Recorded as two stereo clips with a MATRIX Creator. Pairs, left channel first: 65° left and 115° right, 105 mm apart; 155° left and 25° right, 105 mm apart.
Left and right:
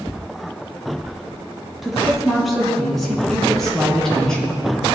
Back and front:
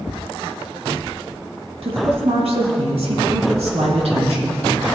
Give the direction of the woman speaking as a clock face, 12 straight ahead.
1 o'clock.